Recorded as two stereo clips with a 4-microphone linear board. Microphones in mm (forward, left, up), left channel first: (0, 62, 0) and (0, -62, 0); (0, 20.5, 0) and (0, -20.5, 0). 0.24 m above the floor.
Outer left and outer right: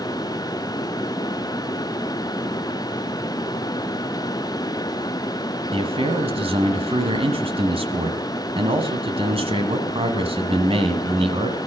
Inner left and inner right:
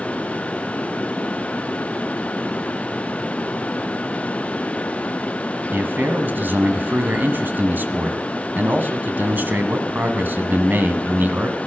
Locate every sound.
5.7 s a man speaking: 50° right (ahead or behind), 1.6 m